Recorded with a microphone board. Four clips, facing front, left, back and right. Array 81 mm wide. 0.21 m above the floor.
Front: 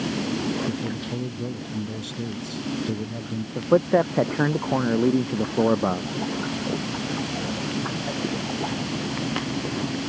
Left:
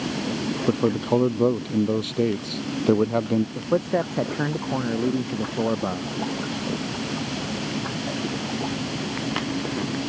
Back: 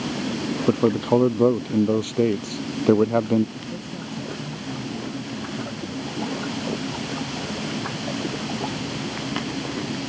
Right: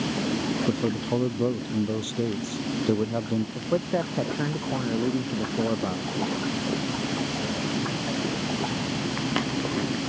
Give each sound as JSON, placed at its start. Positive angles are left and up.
{"t": 0.7, "sound": "a man speaking", "azimuth_deg": 160}
{"t": 3.5, "sound": "a man speaking", "azimuth_deg": 15}